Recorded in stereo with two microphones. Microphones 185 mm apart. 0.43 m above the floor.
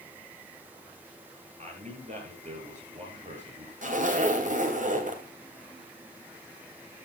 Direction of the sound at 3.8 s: 50° right (ahead or behind).